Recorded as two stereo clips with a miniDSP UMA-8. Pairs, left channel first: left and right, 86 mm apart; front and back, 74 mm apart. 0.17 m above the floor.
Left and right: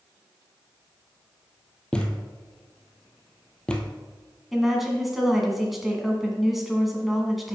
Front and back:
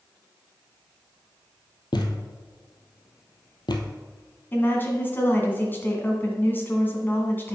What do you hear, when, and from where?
1.9 s a thud: 10° left, 1.0 m
4.5 s a woman speaking: 5° right, 1.7 m